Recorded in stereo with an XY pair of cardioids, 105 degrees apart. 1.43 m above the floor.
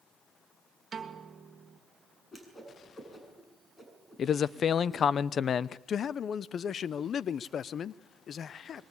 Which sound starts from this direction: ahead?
A whoosh, at 2.3 s.